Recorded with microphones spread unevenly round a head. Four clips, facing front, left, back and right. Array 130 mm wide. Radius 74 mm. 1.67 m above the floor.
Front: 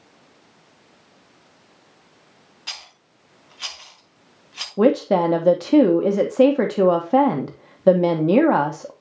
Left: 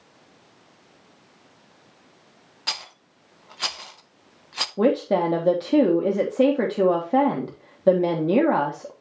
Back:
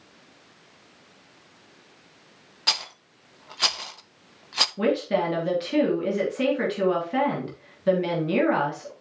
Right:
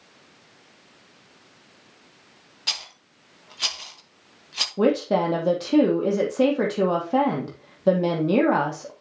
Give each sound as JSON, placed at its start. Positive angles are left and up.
{"t": 2.7, "sound": "a rattle", "azimuth_deg": 175, "distance_m": 0.9}
{"t": 4.8, "sound": "a woman speaking", "azimuth_deg": 20, "distance_m": 1.3}